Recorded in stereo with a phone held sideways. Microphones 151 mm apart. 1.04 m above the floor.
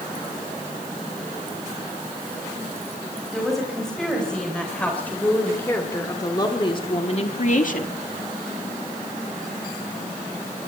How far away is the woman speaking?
About 5.5 m.